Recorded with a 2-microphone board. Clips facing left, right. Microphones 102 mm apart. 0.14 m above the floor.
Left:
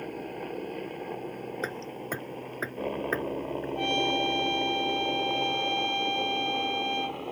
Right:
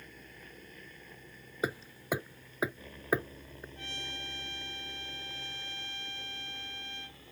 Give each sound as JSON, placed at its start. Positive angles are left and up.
{"t": 0.0, "sound": "a helicopter", "side_deg": 60}
{"t": 1.6, "sound": "hammering", "side_deg": -10}
{"t": 3.8, "sound": "a trumpet", "side_deg": 65}